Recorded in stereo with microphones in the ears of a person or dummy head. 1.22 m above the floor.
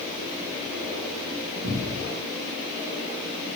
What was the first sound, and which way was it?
A cupboard door, 50° right (ahead or behind).